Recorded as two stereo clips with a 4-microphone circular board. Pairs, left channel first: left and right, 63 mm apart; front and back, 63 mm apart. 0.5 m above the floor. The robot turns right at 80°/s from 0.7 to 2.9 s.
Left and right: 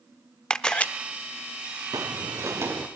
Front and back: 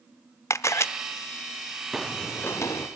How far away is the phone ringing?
I don't hear a phone ringing.